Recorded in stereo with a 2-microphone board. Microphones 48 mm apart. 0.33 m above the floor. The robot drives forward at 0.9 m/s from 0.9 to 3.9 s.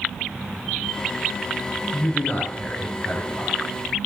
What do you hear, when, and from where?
1.9 s a man speaking: 30° left (ahead or behind), 4 m; by 3.6 s 25° left (ahead or behind), 5.5 m